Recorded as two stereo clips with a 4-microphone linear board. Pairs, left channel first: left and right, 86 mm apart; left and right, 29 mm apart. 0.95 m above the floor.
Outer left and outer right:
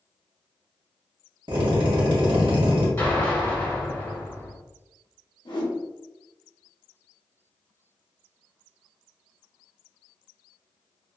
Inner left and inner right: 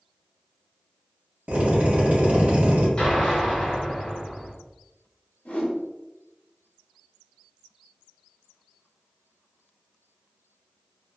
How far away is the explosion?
About 1.8 m.